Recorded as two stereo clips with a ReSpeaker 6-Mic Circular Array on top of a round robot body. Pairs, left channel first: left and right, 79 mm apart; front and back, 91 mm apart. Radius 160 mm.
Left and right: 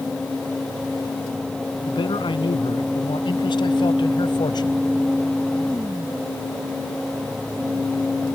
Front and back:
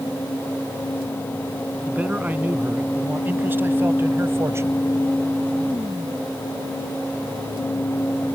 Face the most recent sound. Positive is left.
turn(degrees=120)